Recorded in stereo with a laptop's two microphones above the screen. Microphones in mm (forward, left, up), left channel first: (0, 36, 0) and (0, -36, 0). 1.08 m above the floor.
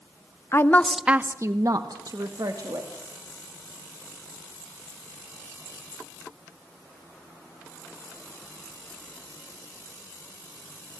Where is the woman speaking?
40° left (ahead or behind), 0.9 m; by 3.0 s 60° right (ahead or behind), 3 m.